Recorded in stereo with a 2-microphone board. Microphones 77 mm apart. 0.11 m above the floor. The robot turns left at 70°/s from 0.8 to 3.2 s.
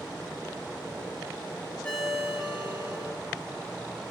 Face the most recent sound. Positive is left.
turn(degrees=-75)